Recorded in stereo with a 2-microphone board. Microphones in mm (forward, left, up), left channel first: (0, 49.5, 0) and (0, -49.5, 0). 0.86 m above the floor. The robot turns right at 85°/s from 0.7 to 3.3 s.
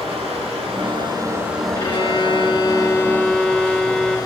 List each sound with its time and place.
0.0 s running water: 85° right, 3 m; by 4.3 s 140° left, 3 m
1.8 s a violin: 40° left, 1.3 m; by 4.2 s 170° left, 1.3 m